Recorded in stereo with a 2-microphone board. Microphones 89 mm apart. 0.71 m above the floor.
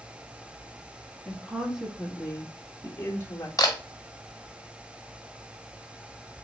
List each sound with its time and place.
1.2 s a woman speaking: 10° right (ahead or behind), 1.9 m; by 3.5 s 35° left (ahead or behind), 1.3 m
3.6 s a camera shutter: 40° left (ahead or behind), 1.4 m